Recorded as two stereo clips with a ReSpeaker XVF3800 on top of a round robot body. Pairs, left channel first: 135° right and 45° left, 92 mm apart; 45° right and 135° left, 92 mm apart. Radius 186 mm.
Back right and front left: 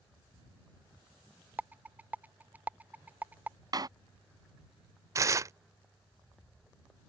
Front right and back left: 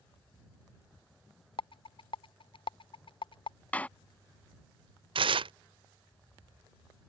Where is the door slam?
25° left.